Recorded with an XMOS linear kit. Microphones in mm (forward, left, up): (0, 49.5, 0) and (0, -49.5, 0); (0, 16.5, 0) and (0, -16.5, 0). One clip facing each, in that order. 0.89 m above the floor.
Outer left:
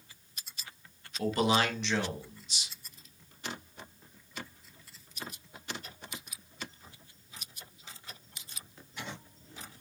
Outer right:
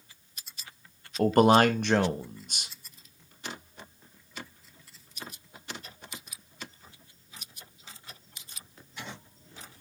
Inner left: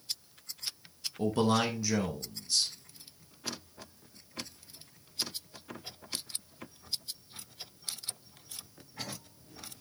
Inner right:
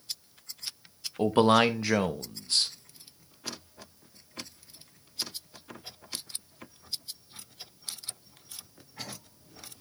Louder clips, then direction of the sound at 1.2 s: Outer right 8 dB, inner right 6 dB; 50° right (ahead or behind).